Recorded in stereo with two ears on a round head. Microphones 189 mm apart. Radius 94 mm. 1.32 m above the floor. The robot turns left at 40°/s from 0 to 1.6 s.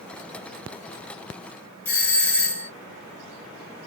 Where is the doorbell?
10° left (ahead or behind), 1.7 m.